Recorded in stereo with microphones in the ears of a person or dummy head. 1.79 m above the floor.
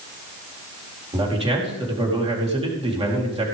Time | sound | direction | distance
1.1 | a man speaking | 25° right (ahead or behind) | 4 m